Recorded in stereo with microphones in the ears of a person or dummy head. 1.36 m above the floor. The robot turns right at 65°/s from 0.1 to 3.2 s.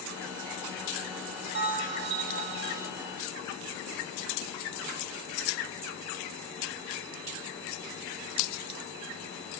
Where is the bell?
100° right, 0.6 m; by 2.9 s 15° right, 0.6 m.